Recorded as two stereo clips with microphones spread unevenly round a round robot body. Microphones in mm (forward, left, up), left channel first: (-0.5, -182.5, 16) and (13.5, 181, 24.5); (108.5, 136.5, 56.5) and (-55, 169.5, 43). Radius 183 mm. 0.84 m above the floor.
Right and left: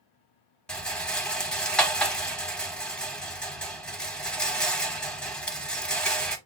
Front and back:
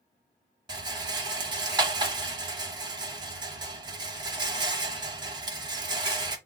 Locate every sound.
0.7 s a rattle: straight behind, 0.7 m